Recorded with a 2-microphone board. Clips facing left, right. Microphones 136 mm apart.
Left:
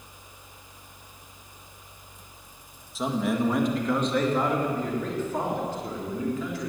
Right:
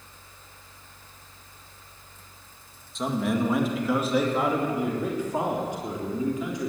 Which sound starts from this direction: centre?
A man speaking, at 3.0 s.